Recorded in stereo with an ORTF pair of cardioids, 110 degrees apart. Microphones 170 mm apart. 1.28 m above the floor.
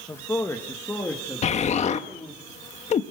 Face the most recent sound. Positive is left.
turn(degrees=45)